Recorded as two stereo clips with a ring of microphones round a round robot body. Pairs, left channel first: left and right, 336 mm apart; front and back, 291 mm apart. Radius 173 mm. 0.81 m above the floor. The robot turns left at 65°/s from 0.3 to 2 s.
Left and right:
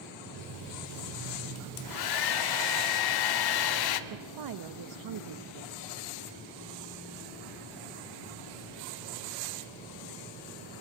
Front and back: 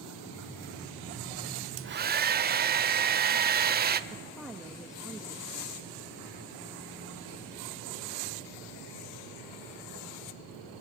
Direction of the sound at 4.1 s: 90° right.